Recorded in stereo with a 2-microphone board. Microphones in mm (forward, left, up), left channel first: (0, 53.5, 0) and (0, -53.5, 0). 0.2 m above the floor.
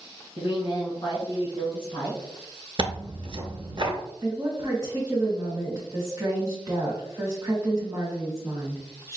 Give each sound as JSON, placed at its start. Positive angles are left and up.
{"t": 0.4, "sound": "a woman speaking", "side_deg": 55, "distance_m": 1.8}
{"t": 2.8, "sound": "tearing paper", "side_deg": -50, "distance_m": 0.6}
{"t": 4.2, "sound": "a woman speaking", "side_deg": -30, "distance_m": 1.1}